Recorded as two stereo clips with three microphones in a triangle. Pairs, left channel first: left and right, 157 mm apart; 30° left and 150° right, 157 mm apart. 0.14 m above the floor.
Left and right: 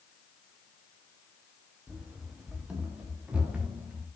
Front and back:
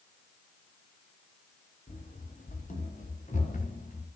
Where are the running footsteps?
5° right, 5 m.